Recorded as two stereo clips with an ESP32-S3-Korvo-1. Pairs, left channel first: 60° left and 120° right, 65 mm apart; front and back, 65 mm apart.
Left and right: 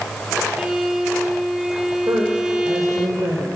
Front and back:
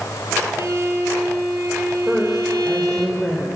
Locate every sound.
0.6 s a violin: 170° left, 2 m
2.1 s a woman speaking: 100° right, 2.5 m